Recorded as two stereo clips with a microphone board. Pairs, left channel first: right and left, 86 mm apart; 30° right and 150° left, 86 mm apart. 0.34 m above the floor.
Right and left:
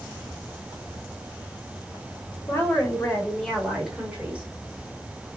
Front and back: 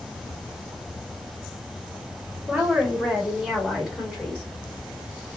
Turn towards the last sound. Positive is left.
turn(degrees=50)